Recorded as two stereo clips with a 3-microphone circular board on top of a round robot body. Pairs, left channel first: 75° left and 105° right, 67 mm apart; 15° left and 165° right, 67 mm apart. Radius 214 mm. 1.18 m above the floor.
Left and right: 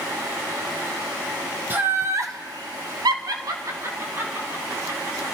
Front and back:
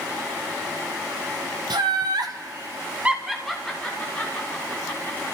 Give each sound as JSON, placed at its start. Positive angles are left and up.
{"t": 1.7, "sound": "laughter", "azimuth_deg": -165, "distance_m": 1.7}